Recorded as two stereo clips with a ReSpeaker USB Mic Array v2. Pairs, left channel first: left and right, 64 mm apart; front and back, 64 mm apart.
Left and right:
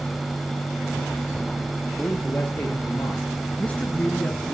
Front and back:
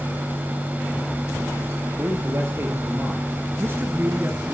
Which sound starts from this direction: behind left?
A man speaking, at 2.0 s.